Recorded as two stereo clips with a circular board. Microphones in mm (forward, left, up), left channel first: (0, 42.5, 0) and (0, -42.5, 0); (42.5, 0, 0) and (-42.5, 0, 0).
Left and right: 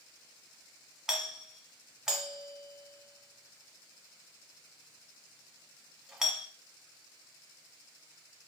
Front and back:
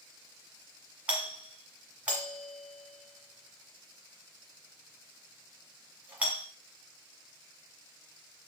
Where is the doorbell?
155° right, 1.4 m.